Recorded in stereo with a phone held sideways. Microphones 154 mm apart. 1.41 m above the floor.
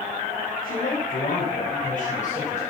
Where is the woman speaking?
70° left (ahead or behind), 6 m; by 2.6 s 50° left (ahead or behind), 6 m.